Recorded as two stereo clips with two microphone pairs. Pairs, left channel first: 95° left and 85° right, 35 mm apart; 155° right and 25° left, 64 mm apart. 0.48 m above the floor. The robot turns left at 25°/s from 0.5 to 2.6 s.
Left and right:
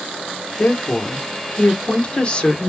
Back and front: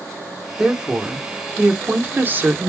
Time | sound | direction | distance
0.6 | a woman speaking | 95° left | 1.0 m